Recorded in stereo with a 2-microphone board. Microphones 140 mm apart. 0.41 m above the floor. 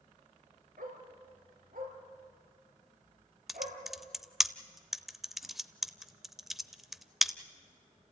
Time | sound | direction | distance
0.8 | a dog barking | 85° right | 3 m
3.5 | typing on a keyboard | centre (ahead or behind) | 0.6 m